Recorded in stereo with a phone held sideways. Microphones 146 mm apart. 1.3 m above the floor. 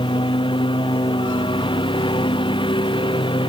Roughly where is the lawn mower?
Left.